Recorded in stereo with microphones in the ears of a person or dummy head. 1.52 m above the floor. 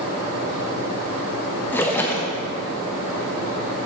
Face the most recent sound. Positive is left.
turn(degrees=10)  # may be behind; listen again after turning